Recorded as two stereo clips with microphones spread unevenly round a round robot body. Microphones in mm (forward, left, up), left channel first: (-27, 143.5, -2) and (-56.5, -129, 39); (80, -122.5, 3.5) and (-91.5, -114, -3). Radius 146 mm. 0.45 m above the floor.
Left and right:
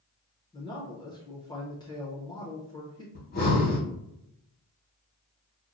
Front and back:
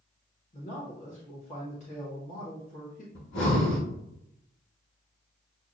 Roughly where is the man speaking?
Ahead left.